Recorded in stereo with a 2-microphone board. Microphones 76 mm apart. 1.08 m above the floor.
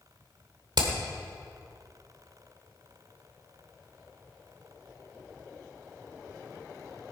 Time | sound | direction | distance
0.8 | hammering | 75° right (ahead or behind) | 2 m